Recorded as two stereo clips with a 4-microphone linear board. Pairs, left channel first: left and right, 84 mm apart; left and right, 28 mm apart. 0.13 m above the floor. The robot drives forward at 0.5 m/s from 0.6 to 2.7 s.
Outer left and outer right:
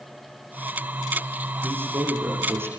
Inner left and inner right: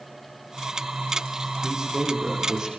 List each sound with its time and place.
1.6 s a man speaking: 30° right (ahead or behind), 7 m